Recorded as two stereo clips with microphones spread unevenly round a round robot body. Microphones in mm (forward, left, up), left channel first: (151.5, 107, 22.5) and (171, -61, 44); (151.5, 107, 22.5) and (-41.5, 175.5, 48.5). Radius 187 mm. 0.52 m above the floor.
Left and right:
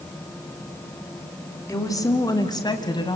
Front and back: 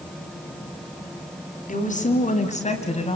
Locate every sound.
1.7 s a woman speaking: 25° left, 4 m; by 3.2 s 35° left, 3 m